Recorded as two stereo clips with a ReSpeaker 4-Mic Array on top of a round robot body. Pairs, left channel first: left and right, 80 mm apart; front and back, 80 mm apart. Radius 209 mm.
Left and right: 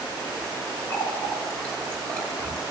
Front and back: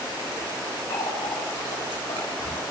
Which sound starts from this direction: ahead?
A running tap, at 0.9 s.